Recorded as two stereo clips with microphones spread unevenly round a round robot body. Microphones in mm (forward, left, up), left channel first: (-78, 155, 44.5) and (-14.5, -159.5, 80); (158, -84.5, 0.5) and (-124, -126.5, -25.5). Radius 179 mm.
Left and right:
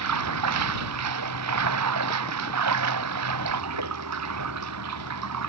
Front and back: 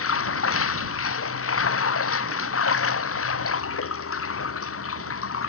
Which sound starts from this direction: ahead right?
Running water, at 0.0 s.